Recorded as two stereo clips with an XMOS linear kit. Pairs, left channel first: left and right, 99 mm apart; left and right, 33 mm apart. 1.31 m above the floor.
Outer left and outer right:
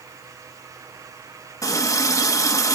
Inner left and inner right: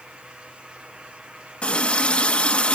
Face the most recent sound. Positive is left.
turn(degrees=35)  # may be behind; listen again after turning